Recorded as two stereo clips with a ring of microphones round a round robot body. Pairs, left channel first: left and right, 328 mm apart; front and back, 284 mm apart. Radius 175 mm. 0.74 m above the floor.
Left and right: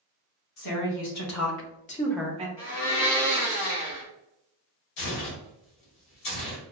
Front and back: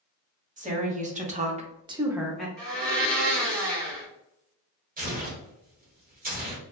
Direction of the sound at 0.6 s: 115° left.